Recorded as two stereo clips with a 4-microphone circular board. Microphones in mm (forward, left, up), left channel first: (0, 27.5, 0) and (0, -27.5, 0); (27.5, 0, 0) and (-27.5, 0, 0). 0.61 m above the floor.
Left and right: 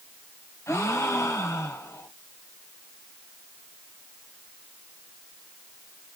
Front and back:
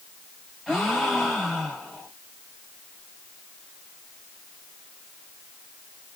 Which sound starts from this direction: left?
A gasp, at 0.7 s.